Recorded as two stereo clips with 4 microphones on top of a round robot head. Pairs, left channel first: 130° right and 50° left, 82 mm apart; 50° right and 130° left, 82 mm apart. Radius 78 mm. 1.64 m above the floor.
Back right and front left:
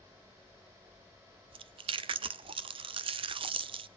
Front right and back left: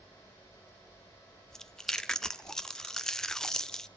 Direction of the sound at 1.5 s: 30° left.